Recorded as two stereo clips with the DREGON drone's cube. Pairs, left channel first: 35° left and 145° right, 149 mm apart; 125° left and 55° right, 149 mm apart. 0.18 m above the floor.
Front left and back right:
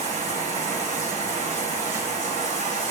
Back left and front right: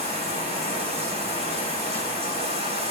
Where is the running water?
10° right, 8.5 m.